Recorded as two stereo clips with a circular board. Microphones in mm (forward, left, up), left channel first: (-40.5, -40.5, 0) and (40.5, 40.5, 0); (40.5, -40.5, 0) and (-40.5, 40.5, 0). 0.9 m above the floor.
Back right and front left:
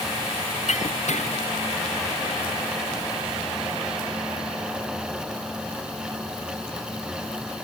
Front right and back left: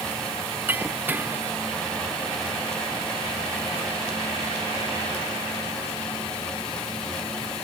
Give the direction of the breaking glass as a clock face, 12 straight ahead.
5 o'clock.